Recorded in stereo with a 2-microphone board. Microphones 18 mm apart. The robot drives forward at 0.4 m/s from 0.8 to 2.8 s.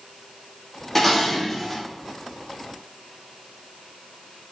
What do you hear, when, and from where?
0.9 s dishes clattering: 15° left (ahead or behind), 1.5 m